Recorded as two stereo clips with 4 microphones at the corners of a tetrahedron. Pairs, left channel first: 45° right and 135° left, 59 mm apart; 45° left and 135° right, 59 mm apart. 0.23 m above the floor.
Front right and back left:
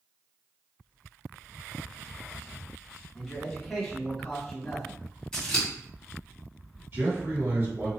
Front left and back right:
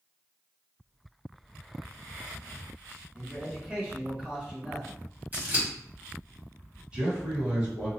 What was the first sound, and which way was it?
A man speaking, 130° right.